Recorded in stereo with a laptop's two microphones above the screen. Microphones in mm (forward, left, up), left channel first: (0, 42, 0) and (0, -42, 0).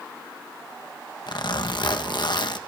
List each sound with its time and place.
1.3 s a zipper: 60° left (ahead or behind), 1.3 m